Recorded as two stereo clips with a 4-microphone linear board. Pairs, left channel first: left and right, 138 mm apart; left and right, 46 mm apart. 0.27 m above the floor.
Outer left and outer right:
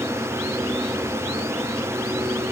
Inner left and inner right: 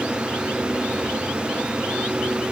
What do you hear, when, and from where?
Only background noise.